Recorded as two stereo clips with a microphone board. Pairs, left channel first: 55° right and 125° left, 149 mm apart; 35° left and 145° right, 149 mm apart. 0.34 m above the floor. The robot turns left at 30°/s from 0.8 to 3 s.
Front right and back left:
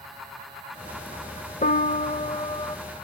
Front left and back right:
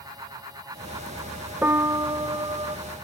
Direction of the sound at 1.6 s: 70° right.